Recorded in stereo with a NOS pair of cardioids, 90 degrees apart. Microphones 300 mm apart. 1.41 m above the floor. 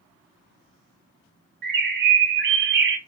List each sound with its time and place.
1.6 s a bird: 35° right, 0.7 m